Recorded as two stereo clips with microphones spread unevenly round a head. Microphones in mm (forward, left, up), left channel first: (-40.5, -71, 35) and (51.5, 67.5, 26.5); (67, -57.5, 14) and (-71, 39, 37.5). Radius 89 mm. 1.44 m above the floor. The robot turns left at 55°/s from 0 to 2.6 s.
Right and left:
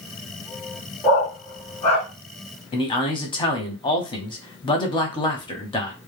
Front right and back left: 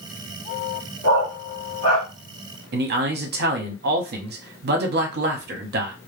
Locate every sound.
1.0 s a dog barking: 35° right, 1.1 m; by 2.1 s 95° right, 1.1 m
2.7 s a man speaking: 175° left, 0.8 m